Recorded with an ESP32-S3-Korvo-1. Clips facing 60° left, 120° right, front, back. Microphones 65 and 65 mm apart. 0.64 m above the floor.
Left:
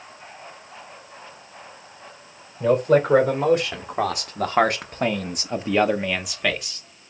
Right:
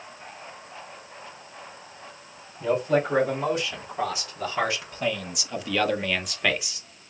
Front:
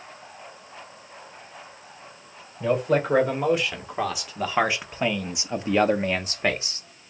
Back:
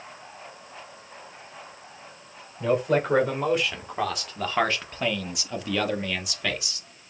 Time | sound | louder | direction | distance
2.6 | a man speaking | left 5 dB, front 1 dB | 90° left | 2 m